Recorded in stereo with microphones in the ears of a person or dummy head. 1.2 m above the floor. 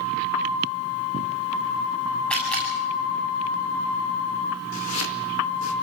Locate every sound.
2.3 s a camera shutter: 5° left (ahead or behind), 7 m
4.7 s chopping: 75° left (ahead or behind), 2 m